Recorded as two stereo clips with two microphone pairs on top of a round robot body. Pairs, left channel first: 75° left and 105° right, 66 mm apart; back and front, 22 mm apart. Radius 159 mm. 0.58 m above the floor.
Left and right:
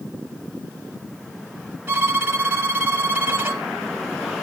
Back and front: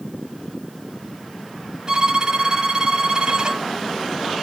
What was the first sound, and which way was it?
A violin, 45° right.